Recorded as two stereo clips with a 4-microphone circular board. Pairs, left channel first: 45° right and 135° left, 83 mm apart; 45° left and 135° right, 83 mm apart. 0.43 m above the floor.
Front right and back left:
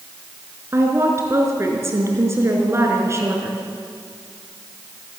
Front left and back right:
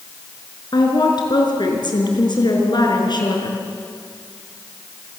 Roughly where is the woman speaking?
Left.